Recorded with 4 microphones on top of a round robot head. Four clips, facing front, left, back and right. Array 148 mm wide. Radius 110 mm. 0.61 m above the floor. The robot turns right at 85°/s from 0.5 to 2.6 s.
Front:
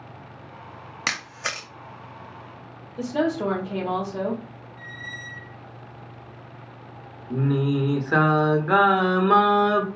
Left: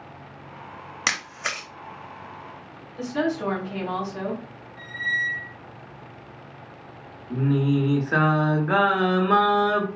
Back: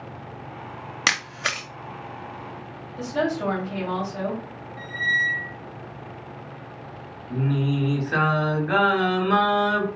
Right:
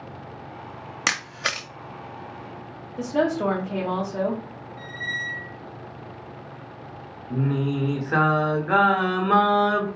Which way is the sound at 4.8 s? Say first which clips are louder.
Left 5 dB, back 15 dB; 160° left.